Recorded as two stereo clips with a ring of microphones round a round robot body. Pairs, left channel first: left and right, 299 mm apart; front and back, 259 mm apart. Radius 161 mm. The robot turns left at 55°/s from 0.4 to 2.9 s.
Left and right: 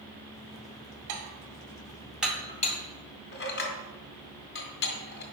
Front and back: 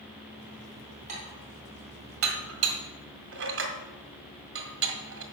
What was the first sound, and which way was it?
Dishes clattering, 115° right.